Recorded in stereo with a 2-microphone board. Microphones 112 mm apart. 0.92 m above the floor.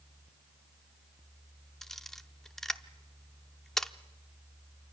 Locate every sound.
1.8 s a camera shutter: 5° left (ahead or behind), 0.7 m